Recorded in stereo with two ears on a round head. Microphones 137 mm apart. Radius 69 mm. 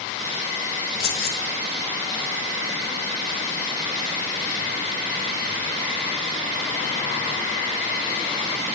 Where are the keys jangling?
65° left (ahead or behind), 1.5 m.